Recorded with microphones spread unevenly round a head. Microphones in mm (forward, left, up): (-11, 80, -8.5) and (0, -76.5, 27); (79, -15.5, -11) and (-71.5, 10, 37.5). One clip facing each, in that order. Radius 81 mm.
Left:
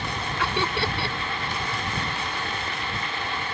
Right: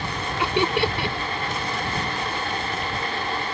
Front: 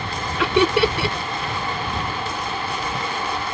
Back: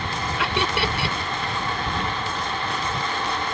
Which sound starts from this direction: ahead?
Laughter, at 0.4 s.